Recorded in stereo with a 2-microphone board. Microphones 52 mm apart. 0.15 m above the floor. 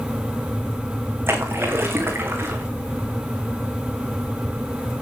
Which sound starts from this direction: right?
A splash, at 1.3 s.